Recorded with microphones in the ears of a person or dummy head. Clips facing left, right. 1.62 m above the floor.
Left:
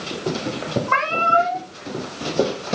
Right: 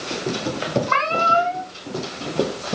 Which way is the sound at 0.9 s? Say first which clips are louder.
Even; 45° right (ahead or behind).